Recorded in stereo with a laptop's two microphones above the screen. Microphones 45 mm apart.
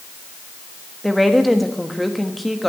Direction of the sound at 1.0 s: Centre (ahead or behind).